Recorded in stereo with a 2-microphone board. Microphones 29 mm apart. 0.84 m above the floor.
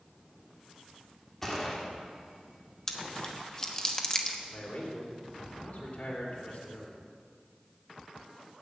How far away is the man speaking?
About 3 m.